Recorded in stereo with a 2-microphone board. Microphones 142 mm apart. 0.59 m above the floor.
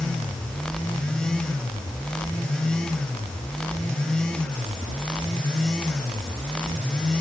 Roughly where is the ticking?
I don't hear ticking.